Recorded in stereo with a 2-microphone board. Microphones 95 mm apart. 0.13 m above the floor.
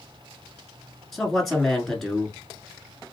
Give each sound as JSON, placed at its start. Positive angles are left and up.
{"t": 1.1, "sound": "a man speaking", "side_deg": 5, "distance_m": 1.3}